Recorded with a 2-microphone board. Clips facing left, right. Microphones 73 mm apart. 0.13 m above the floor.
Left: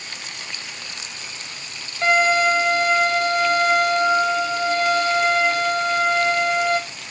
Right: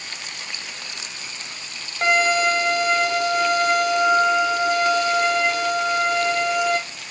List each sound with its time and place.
2.0 s a violin: 80° right, 2.5 m